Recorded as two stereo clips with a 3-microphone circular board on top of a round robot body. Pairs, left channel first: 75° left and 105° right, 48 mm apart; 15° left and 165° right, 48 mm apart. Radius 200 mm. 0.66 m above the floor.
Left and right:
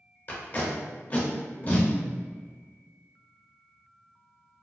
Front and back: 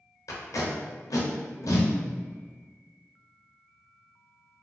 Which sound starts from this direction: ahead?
Tape being pulled, at 0.3 s.